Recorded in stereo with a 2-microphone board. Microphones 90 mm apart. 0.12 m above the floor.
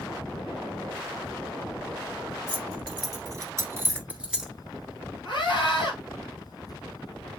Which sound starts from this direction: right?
Keys jangling, at 2.5 s.